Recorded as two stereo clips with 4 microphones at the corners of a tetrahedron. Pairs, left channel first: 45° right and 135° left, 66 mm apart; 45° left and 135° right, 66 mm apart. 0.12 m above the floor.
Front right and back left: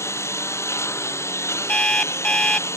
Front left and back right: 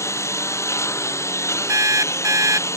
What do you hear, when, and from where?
0.0 s a lawn mower: straight ahead
1.7 s an alarm clock: 115° right